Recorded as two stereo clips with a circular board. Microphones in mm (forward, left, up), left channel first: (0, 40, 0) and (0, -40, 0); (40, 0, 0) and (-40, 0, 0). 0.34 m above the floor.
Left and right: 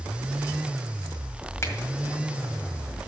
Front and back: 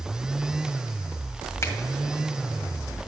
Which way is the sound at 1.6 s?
45° left.